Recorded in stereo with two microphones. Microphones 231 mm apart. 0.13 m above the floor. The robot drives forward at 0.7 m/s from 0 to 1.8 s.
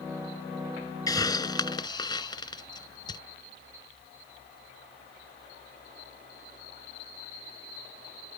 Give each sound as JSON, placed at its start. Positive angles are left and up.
{"t": 1.1, "sound": "a hiss", "side_deg": 15}